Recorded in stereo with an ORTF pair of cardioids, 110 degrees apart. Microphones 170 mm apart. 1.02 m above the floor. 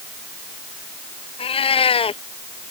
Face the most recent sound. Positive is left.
turn(degrees=35)